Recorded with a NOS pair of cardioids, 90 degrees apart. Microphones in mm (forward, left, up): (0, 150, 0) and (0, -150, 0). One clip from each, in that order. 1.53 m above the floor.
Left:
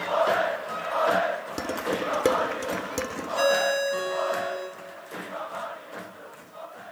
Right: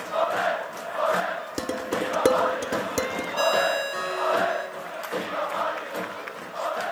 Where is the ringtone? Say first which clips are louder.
Even; 20° right, 7.5 m.